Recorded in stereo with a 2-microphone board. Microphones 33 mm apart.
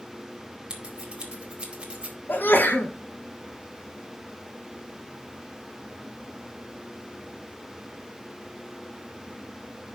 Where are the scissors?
30° right (ahead or behind), 2 m.